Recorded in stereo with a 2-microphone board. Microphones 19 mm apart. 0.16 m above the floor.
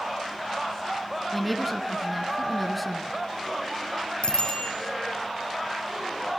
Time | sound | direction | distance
1.3 | a woman speaking | centre (ahead or behind) | 1.4 m
4.2 | a bicycle bell | 75° left (ahead or behind) | 4.5 m